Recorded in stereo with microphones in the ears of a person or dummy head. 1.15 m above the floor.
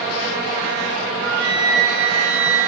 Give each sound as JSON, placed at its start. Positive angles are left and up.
{"t": 1.1, "sound": "a flute", "side_deg": -65, "distance_m": 0.7}